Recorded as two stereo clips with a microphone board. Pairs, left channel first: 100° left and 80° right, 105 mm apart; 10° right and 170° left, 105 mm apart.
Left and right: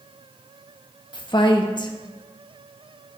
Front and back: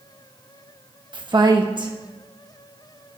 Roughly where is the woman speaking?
Behind left.